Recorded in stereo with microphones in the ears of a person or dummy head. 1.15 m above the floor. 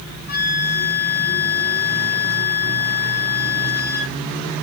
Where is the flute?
60° left (ahead or behind), 2.5 m.